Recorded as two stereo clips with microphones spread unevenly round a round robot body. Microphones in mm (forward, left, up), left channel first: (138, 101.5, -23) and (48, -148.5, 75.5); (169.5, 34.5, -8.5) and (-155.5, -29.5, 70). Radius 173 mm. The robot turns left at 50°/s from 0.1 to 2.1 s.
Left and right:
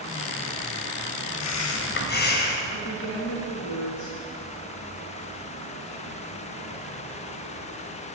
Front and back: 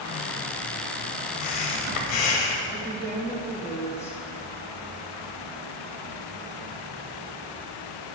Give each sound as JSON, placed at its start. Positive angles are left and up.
{"t": 1.4, "sound": "breathing", "azimuth_deg": 40, "distance_m": 1.2}
{"t": 2.7, "sound": "a woman speaking", "azimuth_deg": 90, "distance_m": 2.0}